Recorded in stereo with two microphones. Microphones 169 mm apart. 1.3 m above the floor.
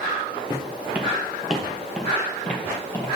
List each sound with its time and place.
0.5 s footsteps: 15° right (ahead or behind), 1.3 m; by 3.2 s 15° left (ahead or behind), 2 m